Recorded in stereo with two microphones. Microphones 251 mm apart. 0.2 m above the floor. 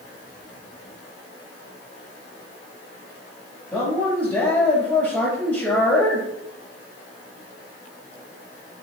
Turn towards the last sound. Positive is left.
turn(degrees=5)  # may be behind; listen again after turning